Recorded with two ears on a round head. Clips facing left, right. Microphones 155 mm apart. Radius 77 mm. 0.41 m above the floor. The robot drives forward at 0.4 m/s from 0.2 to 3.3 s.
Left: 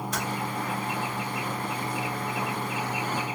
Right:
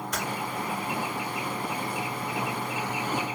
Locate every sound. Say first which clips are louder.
0.1 s typing on a keyboard: even; 30° left (ahead or behind), 1.9 m